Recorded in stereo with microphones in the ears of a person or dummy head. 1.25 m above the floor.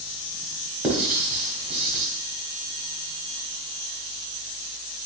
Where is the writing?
10° right (ahead or behind), 1.0 m.